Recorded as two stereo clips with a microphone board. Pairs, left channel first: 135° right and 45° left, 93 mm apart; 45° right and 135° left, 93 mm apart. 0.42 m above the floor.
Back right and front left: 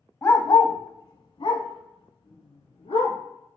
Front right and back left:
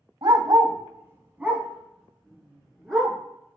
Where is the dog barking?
165° left, 0.5 m; by 3.2 s 130° right, 1.7 m.